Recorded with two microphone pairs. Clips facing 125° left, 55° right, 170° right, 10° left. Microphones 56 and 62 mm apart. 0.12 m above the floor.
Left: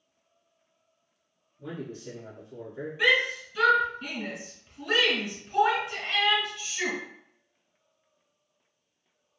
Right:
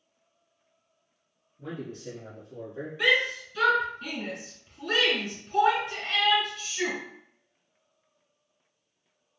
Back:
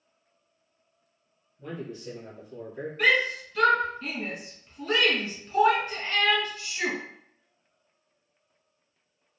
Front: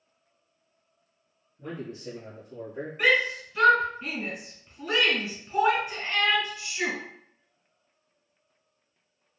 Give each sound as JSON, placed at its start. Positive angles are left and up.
{"t": 1.6, "sound": "a man speaking", "azimuth_deg": -40, "distance_m": 1.3}
{"t": 3.0, "sound": "a shout", "azimuth_deg": 55, "distance_m": 1.4}